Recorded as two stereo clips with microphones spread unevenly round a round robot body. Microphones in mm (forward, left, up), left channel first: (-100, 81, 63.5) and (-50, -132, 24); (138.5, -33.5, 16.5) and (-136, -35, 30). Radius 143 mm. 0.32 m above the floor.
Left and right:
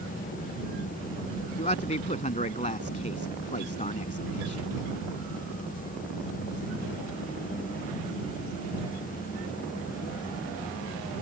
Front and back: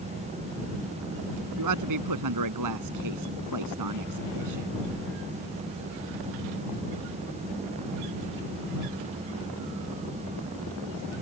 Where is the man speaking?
160° left.